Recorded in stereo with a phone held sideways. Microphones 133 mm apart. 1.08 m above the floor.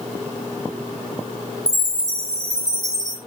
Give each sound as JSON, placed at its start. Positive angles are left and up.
{"t": 1.7, "sound": "a chime", "side_deg": -25, "distance_m": 4.5}